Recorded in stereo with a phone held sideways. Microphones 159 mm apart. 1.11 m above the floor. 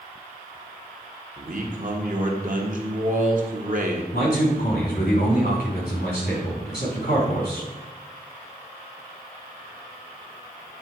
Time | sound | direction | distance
1.4 | a man speaking | 55° right (ahead or behind) | 1.3 m
4.1 | a man speaking | 65° left (ahead or behind) | 3.5 m